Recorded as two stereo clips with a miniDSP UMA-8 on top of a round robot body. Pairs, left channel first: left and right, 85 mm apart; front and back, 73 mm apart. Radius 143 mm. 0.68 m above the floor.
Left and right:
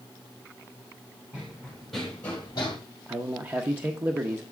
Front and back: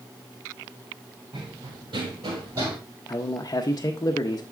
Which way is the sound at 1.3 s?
170° right.